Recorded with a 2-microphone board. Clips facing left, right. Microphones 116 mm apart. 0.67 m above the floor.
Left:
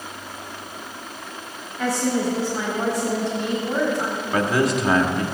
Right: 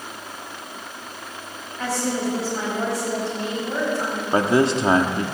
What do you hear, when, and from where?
1.8 s a woman speaking: 5° left (ahead or behind), 5 m
4.3 s a man speaking: 30° right (ahead or behind), 1.1 m